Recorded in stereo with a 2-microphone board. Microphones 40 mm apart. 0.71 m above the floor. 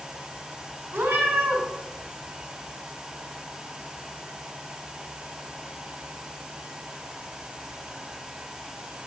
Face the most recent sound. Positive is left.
turn(degrees=-50)  # may be behind; listen again after turning